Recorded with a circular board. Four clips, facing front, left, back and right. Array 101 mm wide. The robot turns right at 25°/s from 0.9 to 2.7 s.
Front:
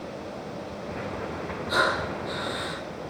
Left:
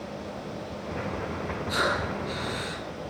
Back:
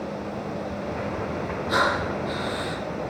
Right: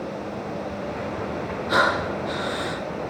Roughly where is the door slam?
No door slam in this recording.